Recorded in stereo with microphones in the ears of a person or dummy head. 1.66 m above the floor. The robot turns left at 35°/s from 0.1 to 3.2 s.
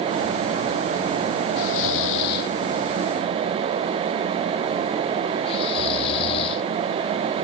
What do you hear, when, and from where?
1.6 s snoring: 80° left; by 6.7 s 35° left (ahead or behind)